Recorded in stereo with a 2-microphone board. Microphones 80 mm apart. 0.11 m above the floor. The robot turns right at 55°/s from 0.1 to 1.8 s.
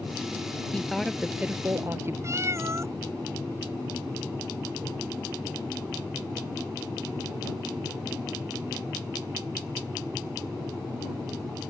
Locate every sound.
0.7 s a woman speaking: 165° left; by 2.1 s 135° right
2.2 s a cat meowing: 35° right (ahead or behind)